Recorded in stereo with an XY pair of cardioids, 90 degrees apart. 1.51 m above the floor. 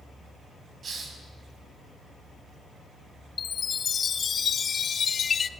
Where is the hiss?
50° right, 4.5 m.